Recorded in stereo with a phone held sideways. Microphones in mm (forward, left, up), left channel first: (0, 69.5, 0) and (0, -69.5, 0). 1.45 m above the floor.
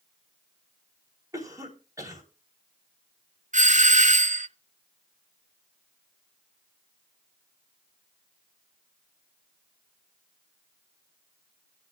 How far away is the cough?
About 4 m.